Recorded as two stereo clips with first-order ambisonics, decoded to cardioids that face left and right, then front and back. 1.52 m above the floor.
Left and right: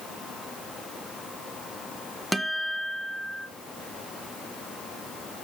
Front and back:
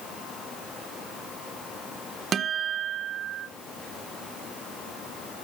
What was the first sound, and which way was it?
A guitar, 175° right.